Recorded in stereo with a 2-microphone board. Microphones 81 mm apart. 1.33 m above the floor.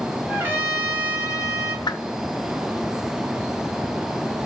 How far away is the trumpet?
About 2.5 m.